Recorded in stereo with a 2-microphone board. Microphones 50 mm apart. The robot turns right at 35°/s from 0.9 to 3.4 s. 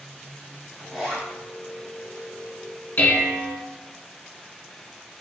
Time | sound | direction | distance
0.8 | a zipper | centre (ahead or behind) | 1.7 m
3.0 | dishes clattering | 35° left (ahead or behind) | 0.9 m